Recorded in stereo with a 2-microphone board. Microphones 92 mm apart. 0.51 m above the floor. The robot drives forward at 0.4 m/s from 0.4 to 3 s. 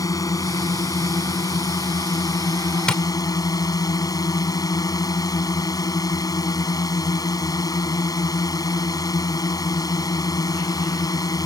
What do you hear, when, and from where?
0.0 s a drone: 40° left (ahead or behind)
2.9 s tapping: 10° left (ahead or behind)